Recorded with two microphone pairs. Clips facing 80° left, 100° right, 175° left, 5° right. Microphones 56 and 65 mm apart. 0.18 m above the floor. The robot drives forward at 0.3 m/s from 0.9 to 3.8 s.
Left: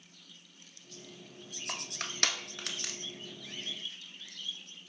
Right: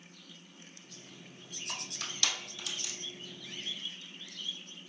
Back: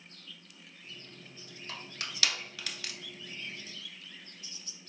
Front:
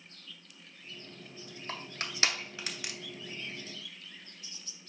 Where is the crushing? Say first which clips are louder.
Left 2 dB, front 3 dB; 45° left, 0.9 m; by 2.9 s 70° left, 0.7 m.